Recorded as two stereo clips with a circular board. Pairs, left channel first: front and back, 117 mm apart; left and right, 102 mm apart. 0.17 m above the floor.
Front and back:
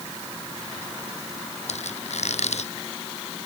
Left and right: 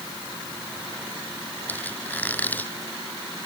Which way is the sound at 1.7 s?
15° left.